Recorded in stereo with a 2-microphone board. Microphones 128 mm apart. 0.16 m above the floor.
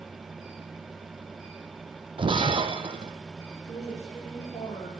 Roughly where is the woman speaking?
Left.